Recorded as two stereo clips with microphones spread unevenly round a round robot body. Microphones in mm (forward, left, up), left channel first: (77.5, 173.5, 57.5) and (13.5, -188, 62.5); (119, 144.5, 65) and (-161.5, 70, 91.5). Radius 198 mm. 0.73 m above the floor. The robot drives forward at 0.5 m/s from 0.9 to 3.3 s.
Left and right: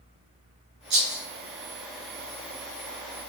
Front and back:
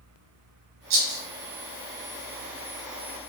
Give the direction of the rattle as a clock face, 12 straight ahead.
5 o'clock.